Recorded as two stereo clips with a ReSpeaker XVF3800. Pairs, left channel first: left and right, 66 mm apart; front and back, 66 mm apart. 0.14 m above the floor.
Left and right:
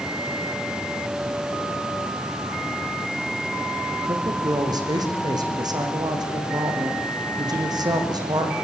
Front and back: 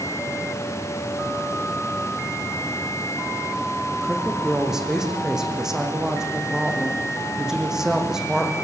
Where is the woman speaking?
95° right, 6 m.